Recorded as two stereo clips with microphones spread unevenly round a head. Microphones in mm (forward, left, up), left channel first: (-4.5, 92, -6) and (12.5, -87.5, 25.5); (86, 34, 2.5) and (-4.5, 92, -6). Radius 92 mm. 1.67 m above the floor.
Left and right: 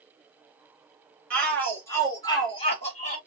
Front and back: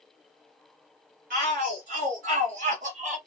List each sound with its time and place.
1.3 s a shout: straight behind, 2.5 m; by 3.2 s 150° left, 1.7 m